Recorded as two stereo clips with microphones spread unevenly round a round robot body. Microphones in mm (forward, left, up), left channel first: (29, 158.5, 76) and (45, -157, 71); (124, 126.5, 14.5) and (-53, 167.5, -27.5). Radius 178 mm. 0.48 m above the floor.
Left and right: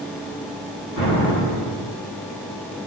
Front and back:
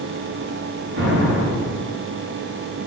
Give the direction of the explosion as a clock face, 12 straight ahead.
7 o'clock.